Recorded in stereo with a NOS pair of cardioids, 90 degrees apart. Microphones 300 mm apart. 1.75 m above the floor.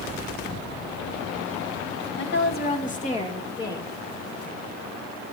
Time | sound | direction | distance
2.2 | a woman speaking | 40° left | 1.9 m